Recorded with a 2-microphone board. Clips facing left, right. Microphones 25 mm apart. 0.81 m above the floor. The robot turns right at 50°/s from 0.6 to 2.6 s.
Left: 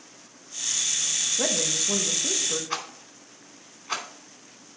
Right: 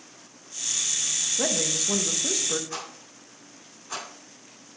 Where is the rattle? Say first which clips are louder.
Left 4 dB; 45° left (ahead or behind), 2.5 m.